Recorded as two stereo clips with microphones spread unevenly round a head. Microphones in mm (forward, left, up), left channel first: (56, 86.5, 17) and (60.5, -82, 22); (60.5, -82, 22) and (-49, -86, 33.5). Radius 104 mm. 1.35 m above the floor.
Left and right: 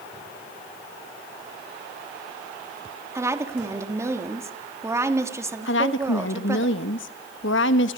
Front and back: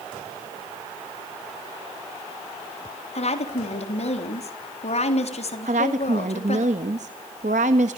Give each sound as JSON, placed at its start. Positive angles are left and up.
{"t": 3.1, "sound": "a woman speaking", "azimuth_deg": -15, "distance_m": 3.5}
{"t": 5.7, "sound": "a woman speaking", "azimuth_deg": 130, "distance_m": 1.5}